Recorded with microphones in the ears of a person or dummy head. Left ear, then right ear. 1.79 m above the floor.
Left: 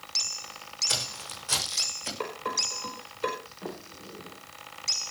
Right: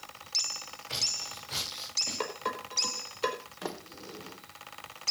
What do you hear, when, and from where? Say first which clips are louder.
0.9 s footsteps: left 1 dB; 50° left (ahead or behind), 6.5 m
2.2 s dishes clattering: left 4 dB; 20° right (ahead or behind), 4.5 m
3.6 s a sliding door: right 1 dB; 75° right (ahead or behind), 1.8 m